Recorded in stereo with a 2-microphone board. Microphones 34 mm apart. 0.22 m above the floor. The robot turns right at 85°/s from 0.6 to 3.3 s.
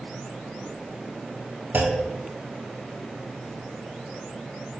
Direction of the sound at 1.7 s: 80° right.